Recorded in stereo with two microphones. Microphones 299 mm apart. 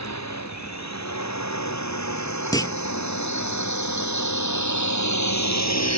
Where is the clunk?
15° left (ahead or behind).